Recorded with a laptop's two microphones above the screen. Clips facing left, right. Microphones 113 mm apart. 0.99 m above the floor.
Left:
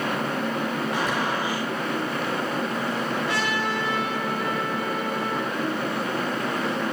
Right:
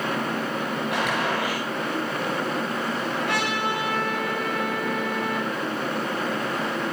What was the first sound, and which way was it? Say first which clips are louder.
A gunshot: even; 85° right.